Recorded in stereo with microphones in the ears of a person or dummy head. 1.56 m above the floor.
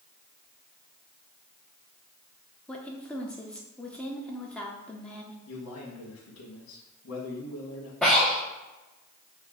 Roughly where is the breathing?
Centre.